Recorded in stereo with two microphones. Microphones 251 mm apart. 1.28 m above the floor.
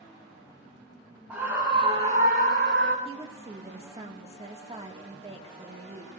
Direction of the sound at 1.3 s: 5° right (ahead or behind).